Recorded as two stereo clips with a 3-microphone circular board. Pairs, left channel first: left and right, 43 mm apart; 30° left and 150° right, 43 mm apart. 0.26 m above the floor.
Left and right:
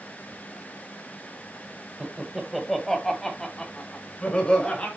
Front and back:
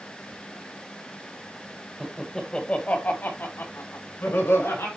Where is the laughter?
100° right, 1.5 m; by 4.9 s 30° left, 4 m.